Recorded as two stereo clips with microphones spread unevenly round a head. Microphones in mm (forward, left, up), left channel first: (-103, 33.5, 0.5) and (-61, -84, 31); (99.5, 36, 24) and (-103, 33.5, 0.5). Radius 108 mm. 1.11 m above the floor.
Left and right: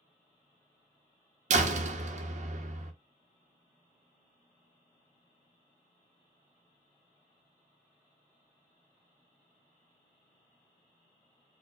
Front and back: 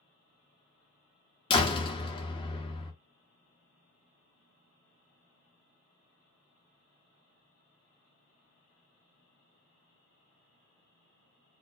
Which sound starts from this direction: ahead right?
A door slam, at 1.5 s.